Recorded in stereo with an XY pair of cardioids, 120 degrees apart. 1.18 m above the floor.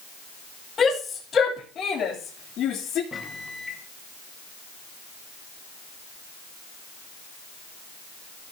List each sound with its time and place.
0.8 s a shout: 35° left, 4 m; by 3.0 s 80° left, 3 m
3.1 s a microwave: 25° left, 1.7 m